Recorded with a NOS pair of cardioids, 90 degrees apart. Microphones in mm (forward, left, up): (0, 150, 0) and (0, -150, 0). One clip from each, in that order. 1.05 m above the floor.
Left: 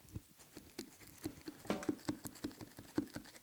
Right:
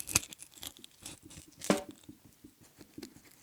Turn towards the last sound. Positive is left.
turn(degrees=-50)